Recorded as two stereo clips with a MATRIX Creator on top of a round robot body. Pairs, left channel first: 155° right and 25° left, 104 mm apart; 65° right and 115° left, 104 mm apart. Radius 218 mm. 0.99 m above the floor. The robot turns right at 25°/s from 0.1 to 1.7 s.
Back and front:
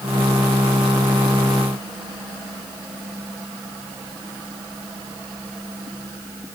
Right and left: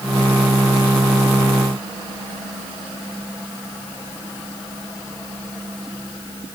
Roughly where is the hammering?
I don't hear hammering.